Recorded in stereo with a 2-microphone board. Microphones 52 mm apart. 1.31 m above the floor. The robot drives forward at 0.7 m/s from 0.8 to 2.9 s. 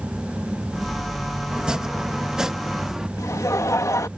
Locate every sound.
1.5 s chopping: 15° right (ahead or behind); by 3.1 s 10° right (ahead or behind)
3.2 s laughter: 80° left